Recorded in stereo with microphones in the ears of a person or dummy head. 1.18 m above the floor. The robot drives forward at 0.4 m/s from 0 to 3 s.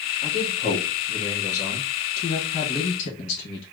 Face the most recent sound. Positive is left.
turn(degrees=70)  # may be behind; listen again after turning